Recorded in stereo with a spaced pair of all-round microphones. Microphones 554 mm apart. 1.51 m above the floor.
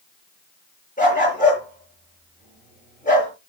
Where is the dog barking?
15° left (ahead or behind), 7 m.